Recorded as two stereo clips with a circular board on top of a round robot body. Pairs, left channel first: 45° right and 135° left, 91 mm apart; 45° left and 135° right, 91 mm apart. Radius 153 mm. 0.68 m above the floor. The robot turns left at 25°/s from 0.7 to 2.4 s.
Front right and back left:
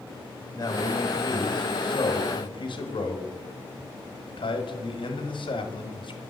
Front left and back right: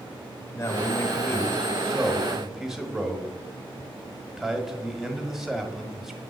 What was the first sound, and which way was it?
A man speaking, 5° right.